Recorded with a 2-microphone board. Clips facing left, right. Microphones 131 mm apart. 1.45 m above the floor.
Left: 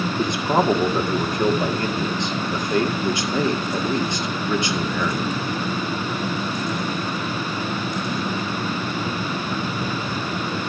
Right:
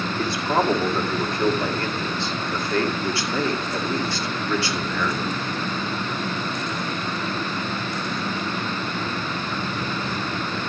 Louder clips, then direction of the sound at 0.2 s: Left 2 dB; 20° left (ahead or behind).